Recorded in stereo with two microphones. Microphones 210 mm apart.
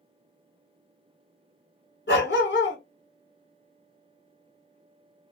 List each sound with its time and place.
2.1 s a dog barking: 65° left (ahead or behind), 1.4 m